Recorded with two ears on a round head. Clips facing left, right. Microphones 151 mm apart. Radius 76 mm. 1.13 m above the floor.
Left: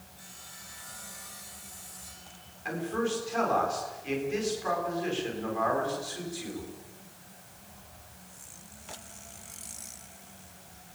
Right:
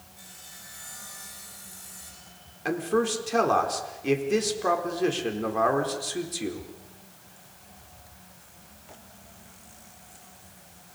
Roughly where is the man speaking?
Right.